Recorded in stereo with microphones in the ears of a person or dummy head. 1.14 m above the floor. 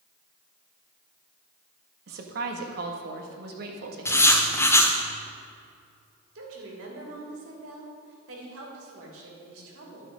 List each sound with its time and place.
2.1 s a woman speaking: 55° right (ahead or behind), 1.4 m
4.0 s writing: 15° left (ahead or behind), 1.2 m
6.3 s a woman speaking: 80° right, 3 m